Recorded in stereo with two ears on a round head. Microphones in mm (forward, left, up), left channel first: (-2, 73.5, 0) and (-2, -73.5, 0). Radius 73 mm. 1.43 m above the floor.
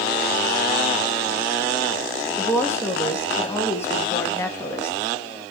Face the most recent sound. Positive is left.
turn(degrees=15)  # may be behind; listen again after turning